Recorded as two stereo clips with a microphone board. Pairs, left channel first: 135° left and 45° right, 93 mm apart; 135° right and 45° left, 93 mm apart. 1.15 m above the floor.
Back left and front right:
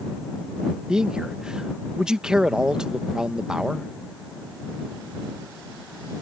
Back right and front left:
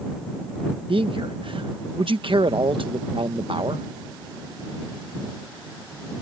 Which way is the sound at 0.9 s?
35° left.